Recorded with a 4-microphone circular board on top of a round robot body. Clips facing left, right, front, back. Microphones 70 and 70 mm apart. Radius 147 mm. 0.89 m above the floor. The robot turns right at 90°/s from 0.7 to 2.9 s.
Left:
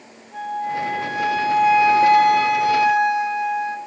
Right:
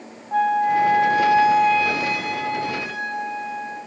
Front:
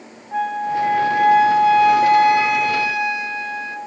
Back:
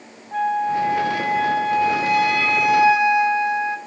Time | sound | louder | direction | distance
0.3 | a flute | right 7 dB, back 1 dB | 85° right | 0.9 m